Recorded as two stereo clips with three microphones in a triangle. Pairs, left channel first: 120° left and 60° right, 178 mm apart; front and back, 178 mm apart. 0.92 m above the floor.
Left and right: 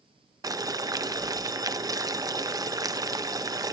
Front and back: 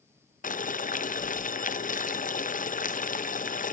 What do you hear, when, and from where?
0.4 s boiling: 5° left, 0.5 m